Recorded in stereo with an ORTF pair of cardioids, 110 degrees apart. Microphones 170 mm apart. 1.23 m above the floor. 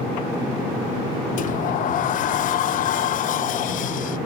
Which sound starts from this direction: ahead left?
A sliding door, at 1.4 s.